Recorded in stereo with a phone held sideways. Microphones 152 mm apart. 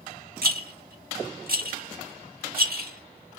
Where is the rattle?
70° right (ahead or behind), 1.7 m.